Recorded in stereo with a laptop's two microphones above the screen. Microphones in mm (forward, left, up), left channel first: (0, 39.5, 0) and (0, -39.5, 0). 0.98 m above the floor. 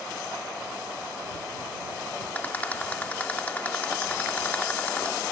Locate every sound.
2.4 s a rattle: 20° left (ahead or behind)